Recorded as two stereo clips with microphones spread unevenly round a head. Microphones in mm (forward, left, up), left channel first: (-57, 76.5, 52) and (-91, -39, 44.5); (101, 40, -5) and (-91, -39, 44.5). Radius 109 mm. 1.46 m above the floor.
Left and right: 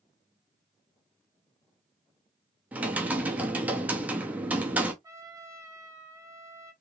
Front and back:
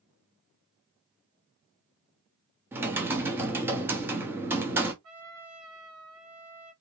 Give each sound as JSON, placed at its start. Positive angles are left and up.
{"t": 2.7, "sound": "typing on a keyboard", "azimuth_deg": 180, "distance_m": 0.9}
{"t": 5.0, "sound": "a trumpet", "azimuth_deg": -175, "distance_m": 1.5}